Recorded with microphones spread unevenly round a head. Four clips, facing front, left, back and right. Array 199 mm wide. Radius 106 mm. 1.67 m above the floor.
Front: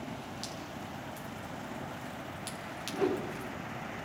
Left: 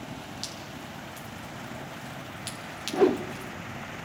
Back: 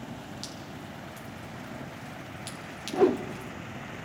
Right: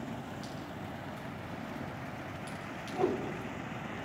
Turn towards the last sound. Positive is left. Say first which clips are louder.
# left 9 dB, back 8 dB
turn(degrees=140)